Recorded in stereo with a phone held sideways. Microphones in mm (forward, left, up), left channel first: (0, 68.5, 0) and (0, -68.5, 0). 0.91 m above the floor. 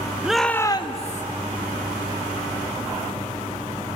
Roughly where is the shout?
Centre.